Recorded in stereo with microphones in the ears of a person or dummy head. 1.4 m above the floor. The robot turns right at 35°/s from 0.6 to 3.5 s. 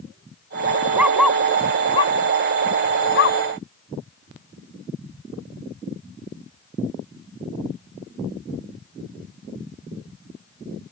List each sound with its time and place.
0.9 s a dog barking: 10° right (ahead or behind); by 3.4 s 70° left (ahead or behind)